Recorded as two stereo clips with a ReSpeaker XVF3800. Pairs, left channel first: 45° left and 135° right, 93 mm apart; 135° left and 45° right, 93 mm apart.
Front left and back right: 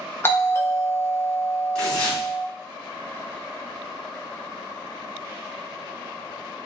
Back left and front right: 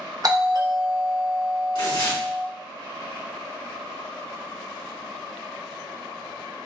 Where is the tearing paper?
125° left, 3 m.